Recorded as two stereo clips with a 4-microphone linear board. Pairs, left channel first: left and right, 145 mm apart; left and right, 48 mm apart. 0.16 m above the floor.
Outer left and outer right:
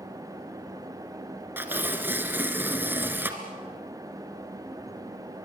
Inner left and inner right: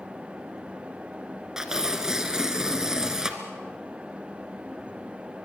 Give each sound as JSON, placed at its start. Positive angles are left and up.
{"t": 1.6, "sound": "tearing paper", "side_deg": -15, "distance_m": 1.9}